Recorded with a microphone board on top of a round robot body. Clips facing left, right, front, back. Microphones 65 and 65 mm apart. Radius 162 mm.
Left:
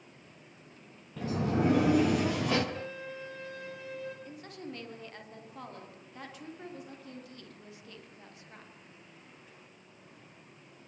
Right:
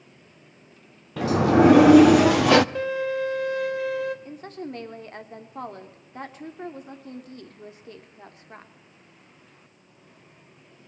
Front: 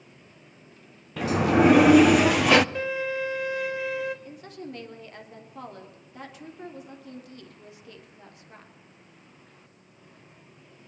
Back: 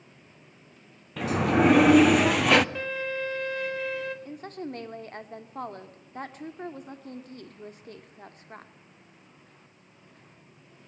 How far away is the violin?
About 4.5 m.